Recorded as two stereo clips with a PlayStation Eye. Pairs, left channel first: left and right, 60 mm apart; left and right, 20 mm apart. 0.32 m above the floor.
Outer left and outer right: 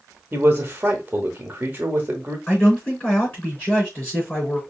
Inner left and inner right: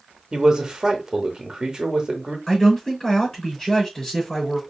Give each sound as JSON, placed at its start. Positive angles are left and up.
{"t": 0.3, "sound": "a man speaking", "side_deg": -30, "distance_m": 1.0}
{"t": 2.5, "sound": "a man speaking", "side_deg": 25, "distance_m": 3.5}